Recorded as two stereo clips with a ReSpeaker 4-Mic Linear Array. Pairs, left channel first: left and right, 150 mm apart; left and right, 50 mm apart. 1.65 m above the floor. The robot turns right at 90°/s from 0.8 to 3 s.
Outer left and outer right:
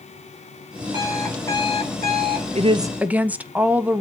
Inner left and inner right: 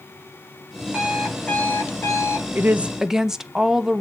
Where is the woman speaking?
50° right, 0.5 m; by 4.0 s 10° right, 0.5 m.